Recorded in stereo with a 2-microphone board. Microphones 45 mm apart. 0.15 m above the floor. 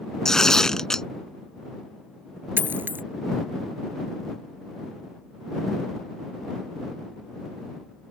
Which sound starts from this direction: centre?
Tearing paper, at 0.2 s.